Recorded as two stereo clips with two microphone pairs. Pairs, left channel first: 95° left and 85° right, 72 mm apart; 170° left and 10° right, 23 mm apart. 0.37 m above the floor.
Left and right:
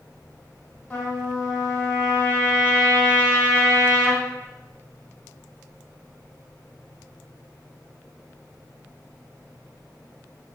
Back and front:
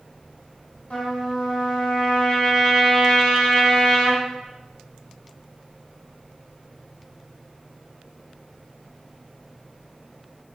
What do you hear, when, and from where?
0.9 s a trumpet: 165° left, 0.8 m